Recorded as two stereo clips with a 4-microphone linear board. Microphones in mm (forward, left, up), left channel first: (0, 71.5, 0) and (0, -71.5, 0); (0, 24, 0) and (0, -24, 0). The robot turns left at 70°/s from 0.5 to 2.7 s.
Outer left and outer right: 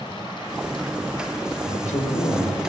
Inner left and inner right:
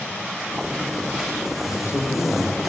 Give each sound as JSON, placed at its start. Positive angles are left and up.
{"t": 1.7, "sound": "a man speaking", "azimuth_deg": 75, "distance_m": 3.0}